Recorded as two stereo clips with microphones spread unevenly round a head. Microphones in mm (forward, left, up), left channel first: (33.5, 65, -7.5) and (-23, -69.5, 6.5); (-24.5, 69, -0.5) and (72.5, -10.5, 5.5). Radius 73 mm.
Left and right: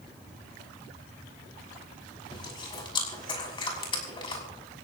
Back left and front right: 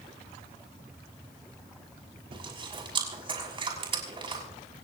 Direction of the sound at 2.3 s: 10° left.